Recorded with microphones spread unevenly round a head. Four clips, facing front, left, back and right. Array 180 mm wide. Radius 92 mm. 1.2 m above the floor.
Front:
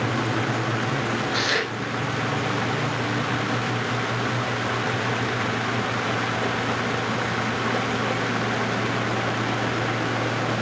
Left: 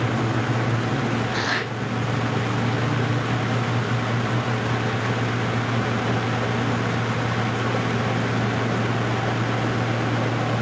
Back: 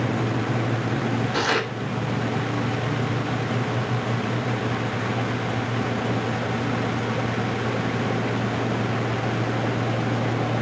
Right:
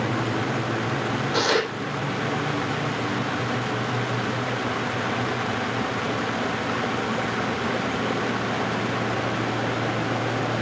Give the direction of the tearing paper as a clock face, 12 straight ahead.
4 o'clock.